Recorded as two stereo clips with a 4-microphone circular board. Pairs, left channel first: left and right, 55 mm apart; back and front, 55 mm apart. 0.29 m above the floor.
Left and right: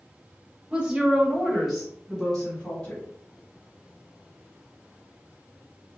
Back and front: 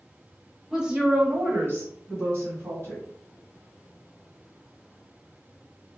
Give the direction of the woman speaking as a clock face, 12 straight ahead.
2 o'clock.